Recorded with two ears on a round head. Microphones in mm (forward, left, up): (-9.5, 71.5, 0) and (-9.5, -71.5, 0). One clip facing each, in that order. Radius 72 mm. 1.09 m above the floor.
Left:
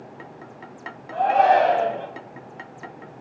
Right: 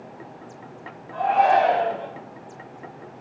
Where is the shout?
60° left (ahead or behind), 0.9 m.